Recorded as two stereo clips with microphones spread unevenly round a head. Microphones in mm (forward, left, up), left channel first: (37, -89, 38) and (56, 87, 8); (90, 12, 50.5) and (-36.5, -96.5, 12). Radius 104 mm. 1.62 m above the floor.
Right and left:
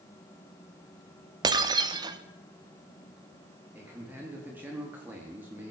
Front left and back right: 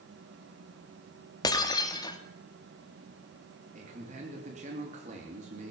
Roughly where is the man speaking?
Behind.